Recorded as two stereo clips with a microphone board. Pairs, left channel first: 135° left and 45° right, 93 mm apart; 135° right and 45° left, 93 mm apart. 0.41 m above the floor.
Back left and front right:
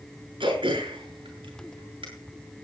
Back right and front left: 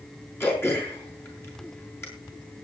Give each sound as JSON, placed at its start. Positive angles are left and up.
{"t": 0.4, "sound": "throat clearing", "azimuth_deg": -70, "distance_m": 7.0}